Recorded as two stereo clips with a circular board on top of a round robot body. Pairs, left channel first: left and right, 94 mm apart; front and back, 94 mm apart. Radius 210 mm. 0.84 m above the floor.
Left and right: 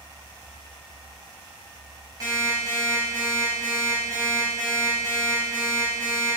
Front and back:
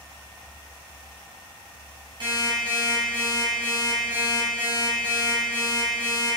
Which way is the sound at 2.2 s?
140° right.